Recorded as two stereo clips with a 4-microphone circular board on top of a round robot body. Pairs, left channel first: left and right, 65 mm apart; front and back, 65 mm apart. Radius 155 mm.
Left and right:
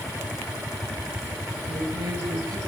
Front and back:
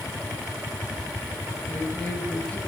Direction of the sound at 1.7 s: 80° right.